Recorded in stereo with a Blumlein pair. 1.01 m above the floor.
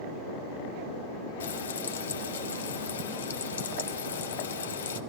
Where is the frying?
65° left, 1.3 m.